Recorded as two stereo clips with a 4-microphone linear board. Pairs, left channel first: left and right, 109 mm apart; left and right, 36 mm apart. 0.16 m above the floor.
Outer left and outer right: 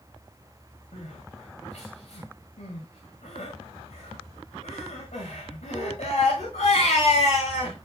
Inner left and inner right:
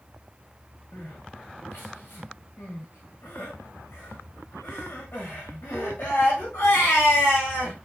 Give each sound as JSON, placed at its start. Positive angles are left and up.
{"t": 0.9, "sound": "crying", "side_deg": 85, "distance_m": 7.0}